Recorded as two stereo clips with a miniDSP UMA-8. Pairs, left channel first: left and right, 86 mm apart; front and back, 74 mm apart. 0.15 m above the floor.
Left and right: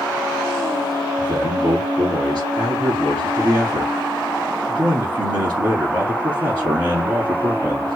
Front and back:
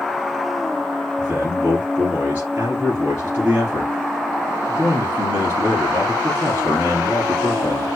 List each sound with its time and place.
1.2 s a man speaking: 120° right, 2.5 m